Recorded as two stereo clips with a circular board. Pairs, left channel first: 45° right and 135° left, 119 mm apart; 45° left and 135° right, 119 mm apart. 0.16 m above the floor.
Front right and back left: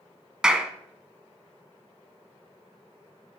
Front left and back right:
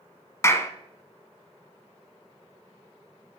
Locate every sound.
0.4 s a clap: 60° left, 1.0 m